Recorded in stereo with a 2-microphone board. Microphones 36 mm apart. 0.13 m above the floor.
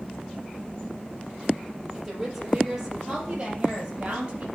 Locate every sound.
1.9 s a woman speaking: 10° right (ahead or behind), 3.5 m; by 4.5 s 30° right (ahead or behind), 3.5 m